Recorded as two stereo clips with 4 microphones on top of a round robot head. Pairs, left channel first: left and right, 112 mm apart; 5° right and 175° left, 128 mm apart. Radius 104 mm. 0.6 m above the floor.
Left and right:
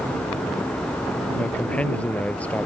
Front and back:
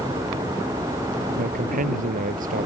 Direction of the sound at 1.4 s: 170° left.